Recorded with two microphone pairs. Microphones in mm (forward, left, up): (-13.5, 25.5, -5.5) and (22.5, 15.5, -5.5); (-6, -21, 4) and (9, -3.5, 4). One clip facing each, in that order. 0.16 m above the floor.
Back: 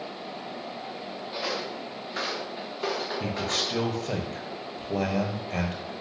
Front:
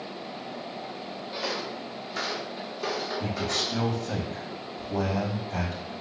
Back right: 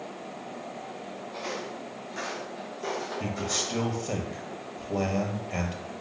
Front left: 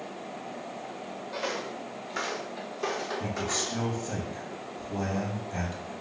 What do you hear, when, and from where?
1.3 s footsteps: 95° left, 5 m; by 4.2 s 115° left, 5 m
3.2 s a man speaking: 160° right, 4 m